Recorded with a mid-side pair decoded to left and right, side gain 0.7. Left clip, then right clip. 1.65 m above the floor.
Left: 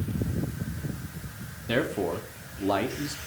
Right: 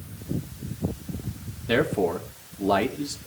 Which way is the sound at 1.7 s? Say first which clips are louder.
Right 4 dB; 10° right.